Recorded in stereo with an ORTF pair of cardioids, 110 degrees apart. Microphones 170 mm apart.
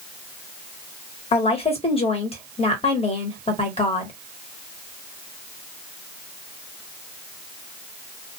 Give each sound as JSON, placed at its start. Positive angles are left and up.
{"t": 1.3, "sound": "a woman speaking", "azimuth_deg": 35, "distance_m": 1.2}